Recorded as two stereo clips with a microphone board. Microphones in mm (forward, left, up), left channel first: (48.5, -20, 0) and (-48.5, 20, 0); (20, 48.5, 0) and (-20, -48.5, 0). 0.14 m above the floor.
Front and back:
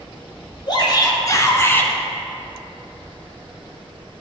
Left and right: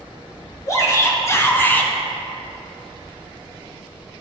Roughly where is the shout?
Ahead.